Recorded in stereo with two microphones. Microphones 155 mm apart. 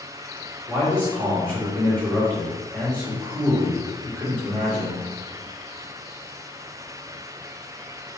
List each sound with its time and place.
0.7 s a man speaking: 5° left (ahead or behind), 3 m